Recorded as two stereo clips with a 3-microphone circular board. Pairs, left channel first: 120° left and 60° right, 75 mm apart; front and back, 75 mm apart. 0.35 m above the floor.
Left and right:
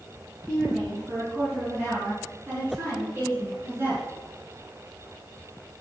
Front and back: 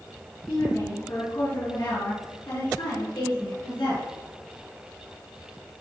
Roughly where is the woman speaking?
Ahead left.